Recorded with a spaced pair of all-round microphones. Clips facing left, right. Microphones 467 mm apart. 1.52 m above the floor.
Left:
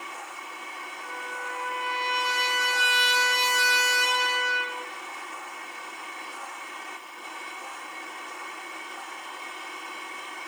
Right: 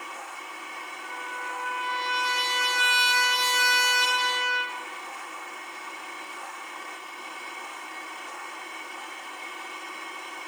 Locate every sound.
1.0 s a trumpet: 40° right (ahead or behind), 2.5 m